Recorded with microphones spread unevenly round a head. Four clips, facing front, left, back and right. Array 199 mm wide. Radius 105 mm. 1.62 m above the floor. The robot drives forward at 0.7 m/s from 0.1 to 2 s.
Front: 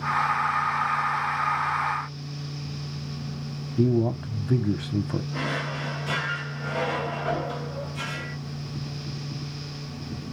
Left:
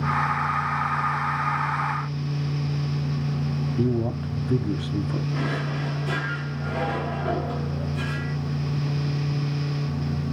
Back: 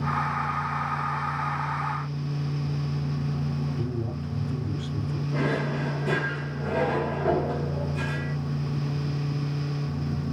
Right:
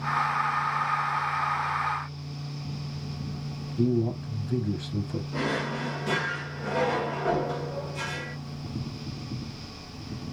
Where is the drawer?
165° right, 2 m.